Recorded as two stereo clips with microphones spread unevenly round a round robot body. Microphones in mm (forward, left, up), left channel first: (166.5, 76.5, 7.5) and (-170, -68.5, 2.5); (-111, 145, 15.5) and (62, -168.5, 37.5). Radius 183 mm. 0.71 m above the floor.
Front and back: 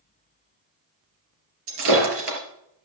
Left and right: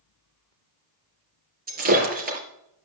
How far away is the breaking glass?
About 4 m.